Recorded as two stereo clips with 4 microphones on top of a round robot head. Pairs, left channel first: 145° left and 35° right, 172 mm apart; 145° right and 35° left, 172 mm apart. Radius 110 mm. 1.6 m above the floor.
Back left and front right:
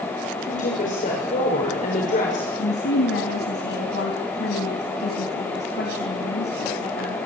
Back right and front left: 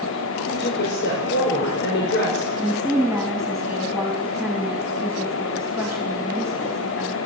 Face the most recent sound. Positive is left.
turn(degrees=125)